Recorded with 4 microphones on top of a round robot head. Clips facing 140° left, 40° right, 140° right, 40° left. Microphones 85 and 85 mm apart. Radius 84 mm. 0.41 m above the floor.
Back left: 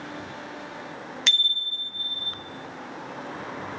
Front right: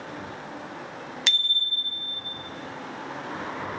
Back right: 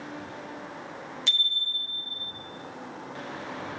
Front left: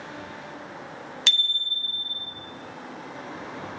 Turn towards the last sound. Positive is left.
turn(degrees=45)